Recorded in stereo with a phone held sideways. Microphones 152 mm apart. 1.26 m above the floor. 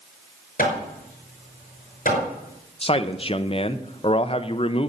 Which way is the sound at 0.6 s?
65° left (ahead or behind).